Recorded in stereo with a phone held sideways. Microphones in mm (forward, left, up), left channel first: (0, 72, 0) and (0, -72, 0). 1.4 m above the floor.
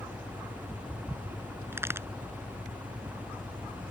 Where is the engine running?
10° right (ahead or behind).